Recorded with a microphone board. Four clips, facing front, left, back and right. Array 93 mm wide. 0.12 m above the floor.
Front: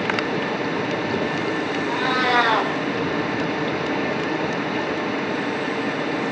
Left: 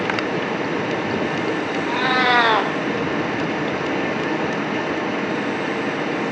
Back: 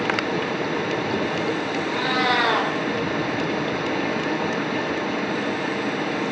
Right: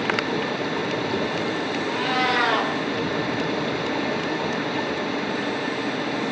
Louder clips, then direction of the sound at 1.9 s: Left 6 dB, front 1 dB; 75° left.